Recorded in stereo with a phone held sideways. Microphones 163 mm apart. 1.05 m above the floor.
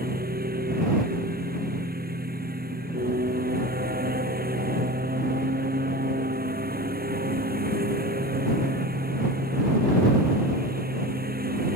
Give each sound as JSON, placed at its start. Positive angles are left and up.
{"t": 0.0, "sound": "a lawn mower", "side_deg": -75}